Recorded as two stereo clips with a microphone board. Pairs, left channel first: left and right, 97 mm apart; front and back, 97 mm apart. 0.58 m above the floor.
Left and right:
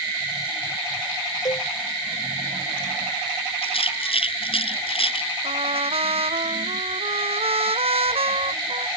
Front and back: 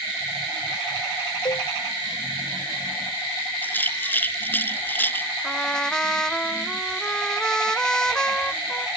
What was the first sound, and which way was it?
A cowbell, 40° left.